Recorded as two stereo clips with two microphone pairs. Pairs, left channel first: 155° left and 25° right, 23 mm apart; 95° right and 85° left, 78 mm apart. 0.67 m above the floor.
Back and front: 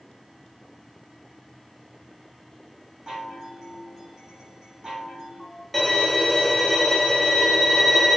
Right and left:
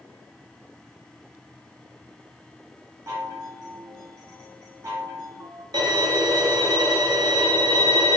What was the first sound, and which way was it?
A chime, 35° left.